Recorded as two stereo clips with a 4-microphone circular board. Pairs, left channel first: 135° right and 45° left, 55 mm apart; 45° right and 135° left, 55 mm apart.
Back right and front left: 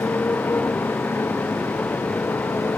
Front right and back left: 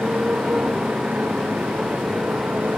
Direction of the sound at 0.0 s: 170° right.